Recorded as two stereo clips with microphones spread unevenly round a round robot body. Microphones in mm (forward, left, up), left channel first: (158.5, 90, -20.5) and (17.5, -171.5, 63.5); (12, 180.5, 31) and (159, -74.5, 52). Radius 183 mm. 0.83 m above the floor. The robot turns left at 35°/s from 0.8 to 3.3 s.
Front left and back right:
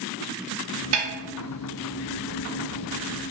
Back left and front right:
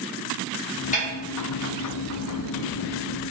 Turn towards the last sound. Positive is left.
turn(degrees=110)